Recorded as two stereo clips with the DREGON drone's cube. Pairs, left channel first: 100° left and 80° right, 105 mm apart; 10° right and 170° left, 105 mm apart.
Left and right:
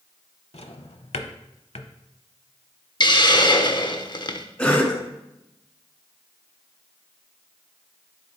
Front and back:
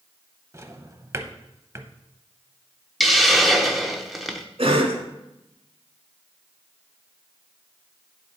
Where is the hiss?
80° left, 0.7 m.